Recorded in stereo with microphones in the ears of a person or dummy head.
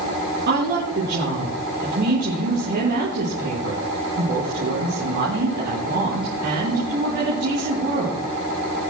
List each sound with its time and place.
0.5 s a woman speaking: 50° right (ahead or behind), 5 m